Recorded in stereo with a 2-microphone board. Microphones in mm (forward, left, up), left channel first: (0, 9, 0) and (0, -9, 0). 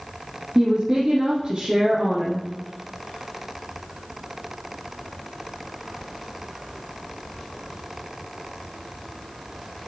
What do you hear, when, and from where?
0.6 s a woman speaking: 45° right (ahead or behind), 2.5 m